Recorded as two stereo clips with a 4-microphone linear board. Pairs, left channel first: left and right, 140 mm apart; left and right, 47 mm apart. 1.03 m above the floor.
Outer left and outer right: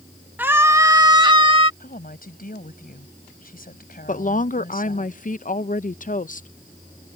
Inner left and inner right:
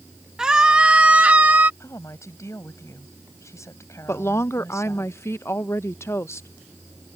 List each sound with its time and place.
0.4 s a scream: 10° right (ahead or behind); by 1.7 s 40° right (ahead or behind)
1.8 s a woman speaking: 75° left (ahead or behind)
4.1 s a woman speaking: 60° left (ahead or behind)